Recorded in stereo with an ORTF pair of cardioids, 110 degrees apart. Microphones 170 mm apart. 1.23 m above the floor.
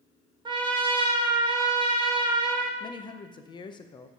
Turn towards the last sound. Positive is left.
turn(degrees=25)